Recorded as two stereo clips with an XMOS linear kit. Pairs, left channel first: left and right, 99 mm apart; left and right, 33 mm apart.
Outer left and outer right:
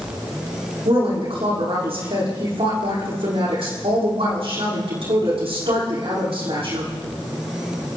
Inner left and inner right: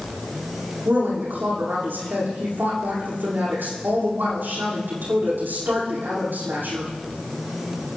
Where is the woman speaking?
75° right (ahead or behind), 9 m.